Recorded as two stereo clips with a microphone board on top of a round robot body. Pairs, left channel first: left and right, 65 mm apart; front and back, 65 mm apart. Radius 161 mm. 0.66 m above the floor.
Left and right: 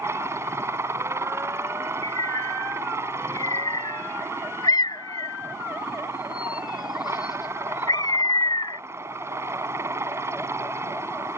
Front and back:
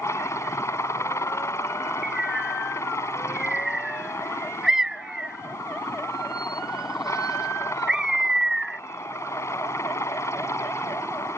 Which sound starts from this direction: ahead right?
A helicopter, at 0.0 s.